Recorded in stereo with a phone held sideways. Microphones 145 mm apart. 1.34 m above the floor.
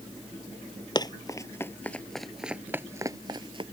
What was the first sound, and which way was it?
Running footsteps, 30° left (ahead or behind).